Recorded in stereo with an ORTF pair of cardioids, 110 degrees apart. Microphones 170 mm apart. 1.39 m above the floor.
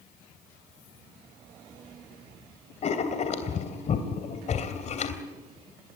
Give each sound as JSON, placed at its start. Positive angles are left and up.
{"t": 2.8, "sound": "writing", "azimuth_deg": 45, "distance_m": 3.0}